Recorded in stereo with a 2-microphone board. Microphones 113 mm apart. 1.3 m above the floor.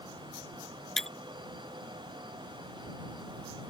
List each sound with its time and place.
1.0 s breaking glass: 5° left (ahead or behind)